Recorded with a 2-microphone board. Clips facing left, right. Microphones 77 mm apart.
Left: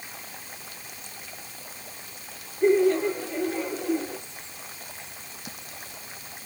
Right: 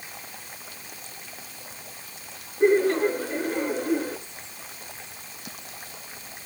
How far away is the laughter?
About 6.5 m.